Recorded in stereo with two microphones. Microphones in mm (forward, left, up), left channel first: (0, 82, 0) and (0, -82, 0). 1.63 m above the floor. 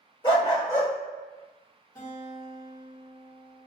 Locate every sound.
0.2 s a dog barking: 30° left (ahead or behind), 2.0 m
1.9 s a guitar: 20° left (ahead or behind), 1.4 m